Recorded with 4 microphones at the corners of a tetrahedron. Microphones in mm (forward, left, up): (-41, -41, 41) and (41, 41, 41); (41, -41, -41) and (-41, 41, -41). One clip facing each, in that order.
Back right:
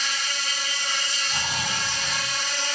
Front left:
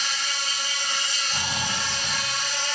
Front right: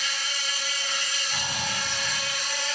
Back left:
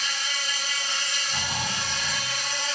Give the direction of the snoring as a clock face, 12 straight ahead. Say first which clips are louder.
Even, back left 1 dB; 2 o'clock.